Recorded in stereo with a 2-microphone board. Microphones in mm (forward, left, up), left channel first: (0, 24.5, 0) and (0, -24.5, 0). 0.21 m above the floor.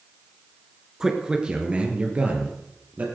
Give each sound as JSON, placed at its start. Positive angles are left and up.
{"t": 1.0, "sound": "a man speaking", "side_deg": -10, "distance_m": 3.0}